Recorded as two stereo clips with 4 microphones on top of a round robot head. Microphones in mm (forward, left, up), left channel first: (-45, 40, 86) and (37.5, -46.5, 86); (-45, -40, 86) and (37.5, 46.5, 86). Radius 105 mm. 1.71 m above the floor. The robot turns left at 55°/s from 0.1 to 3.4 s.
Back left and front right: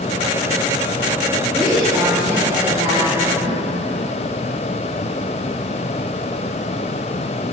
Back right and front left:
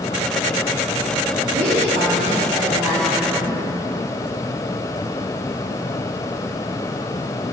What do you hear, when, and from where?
1.5 s a woman speaking: 55° left, 3.5 m; by 3.6 s 50° right, 3.5 m